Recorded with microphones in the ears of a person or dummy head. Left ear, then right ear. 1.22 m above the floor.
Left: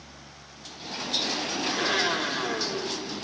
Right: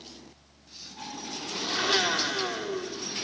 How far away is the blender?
About 4 m.